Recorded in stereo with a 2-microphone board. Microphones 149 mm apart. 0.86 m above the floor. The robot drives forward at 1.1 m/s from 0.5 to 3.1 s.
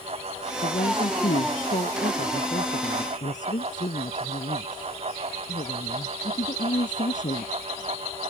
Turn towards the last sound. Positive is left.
turn(degrees=55)  # may be behind; listen again after turning